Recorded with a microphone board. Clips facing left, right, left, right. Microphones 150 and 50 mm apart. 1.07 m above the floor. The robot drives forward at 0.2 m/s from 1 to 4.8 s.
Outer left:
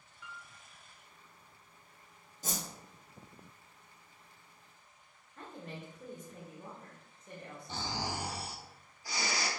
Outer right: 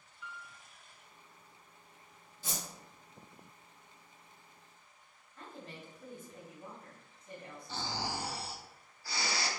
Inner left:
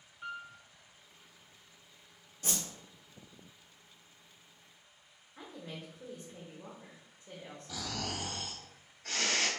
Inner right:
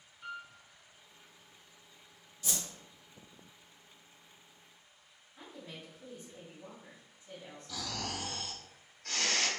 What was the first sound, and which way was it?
A piano, 40° left (ahead or behind).